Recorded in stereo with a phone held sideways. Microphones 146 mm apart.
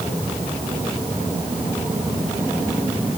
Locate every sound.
Only background noise.